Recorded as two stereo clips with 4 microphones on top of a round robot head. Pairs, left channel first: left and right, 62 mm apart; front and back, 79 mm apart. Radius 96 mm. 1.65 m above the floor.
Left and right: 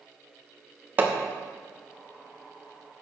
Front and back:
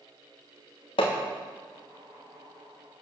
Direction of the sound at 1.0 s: 35° right.